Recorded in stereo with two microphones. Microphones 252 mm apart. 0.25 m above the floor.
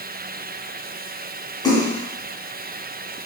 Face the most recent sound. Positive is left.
turn(degrees=15)  # may be behind; listen again after turning